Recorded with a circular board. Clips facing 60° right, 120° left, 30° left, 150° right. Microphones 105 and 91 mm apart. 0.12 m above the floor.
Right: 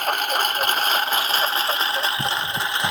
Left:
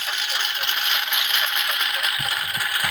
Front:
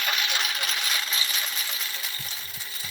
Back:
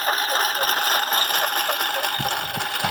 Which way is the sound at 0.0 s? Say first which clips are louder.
Right 8 dB, back 7 dB; 100° right.